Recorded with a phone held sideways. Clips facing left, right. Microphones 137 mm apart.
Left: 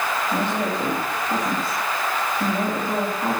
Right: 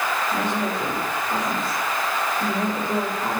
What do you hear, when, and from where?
0.3 s a woman speaking: 60° left (ahead or behind), 3.5 m